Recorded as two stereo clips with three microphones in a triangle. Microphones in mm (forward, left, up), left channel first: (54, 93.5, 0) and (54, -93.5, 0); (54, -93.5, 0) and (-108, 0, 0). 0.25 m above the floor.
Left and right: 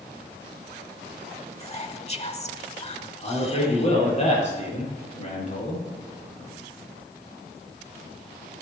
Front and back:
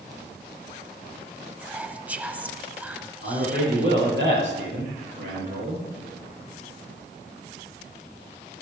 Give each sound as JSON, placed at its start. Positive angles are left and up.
{"t": 1.6, "sound": "whispering", "azimuth_deg": 75, "distance_m": 1.1}
{"t": 3.2, "sound": "a man speaking", "azimuth_deg": 140, "distance_m": 6.5}